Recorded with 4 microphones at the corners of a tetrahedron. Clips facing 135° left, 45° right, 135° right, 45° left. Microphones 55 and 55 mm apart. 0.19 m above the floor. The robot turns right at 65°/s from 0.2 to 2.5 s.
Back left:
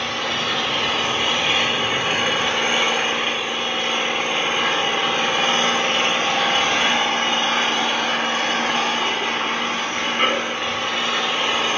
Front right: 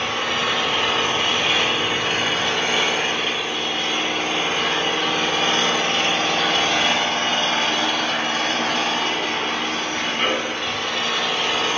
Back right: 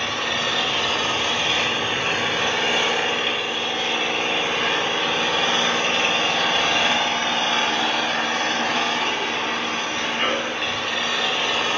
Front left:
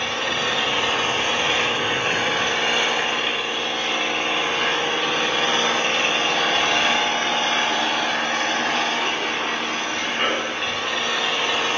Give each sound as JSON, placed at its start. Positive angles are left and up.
{"t": 0.0, "sound": "an engine running", "azimuth_deg": 0, "distance_m": 1.3}